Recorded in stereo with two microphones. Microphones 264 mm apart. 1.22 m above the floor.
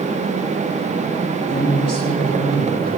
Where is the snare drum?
I don't hear a snare drum.